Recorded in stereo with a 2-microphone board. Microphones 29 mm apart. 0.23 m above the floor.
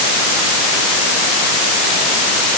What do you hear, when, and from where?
Only background noise.